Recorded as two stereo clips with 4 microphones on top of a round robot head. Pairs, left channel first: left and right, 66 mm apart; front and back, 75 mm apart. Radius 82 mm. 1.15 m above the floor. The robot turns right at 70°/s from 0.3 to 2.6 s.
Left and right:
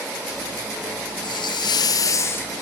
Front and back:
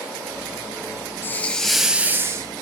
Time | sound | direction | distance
1.2 | a hiss | 55° left | 1.4 m